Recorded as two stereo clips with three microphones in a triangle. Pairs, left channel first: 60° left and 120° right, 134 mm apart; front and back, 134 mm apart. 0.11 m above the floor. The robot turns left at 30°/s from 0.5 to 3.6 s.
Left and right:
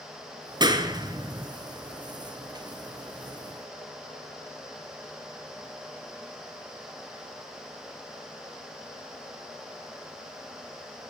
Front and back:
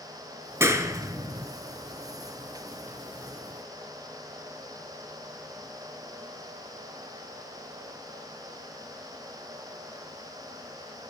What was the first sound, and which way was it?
A clap, 130° right.